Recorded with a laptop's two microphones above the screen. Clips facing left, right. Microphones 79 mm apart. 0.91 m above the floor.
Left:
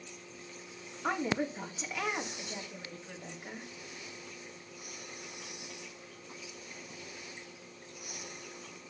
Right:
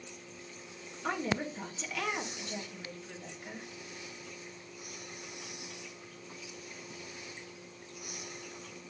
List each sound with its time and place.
1.0 s a woman speaking: 15° left (ahead or behind), 1.5 m